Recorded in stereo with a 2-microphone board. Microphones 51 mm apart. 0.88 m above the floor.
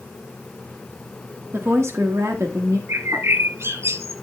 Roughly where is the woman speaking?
Right.